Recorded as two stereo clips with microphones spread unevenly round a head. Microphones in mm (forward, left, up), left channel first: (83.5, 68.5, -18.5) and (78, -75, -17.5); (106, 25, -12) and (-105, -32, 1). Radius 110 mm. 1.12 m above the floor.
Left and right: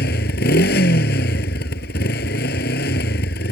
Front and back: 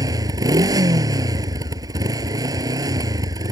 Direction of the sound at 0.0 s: 120° left.